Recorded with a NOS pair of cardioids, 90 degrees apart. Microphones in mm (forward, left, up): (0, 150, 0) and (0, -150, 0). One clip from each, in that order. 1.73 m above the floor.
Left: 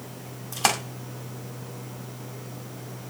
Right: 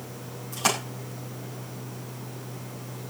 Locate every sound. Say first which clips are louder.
0.5 s a splash: left 2 dB; 50° left, 6.5 m